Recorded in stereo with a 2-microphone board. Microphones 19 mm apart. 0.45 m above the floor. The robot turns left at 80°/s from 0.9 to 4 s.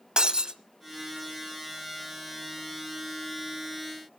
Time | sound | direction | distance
0.2 | breaking glass | 50° right (ahead or behind) | 0.9 m